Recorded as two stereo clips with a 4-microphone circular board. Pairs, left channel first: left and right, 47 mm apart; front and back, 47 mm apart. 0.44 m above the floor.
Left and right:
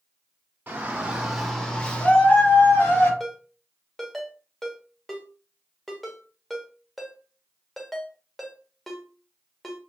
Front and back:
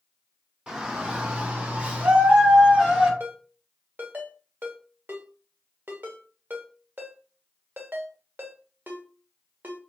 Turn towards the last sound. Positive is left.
turn(degrees=175)